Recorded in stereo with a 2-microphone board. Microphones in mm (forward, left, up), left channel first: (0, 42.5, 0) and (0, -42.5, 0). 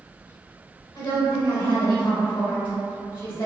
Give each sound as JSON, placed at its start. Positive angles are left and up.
{"t": 0.9, "sound": "a woman speaking", "side_deg": 65, "distance_m": 1.5}